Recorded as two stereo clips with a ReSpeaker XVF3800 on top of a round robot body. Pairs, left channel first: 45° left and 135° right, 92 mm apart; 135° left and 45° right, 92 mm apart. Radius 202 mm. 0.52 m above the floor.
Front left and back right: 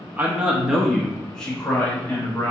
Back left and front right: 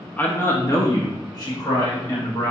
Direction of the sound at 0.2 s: Straight behind.